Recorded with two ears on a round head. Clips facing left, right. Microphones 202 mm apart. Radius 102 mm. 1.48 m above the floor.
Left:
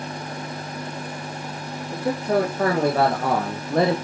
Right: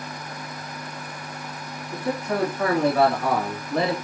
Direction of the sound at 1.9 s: 30° left (ahead or behind).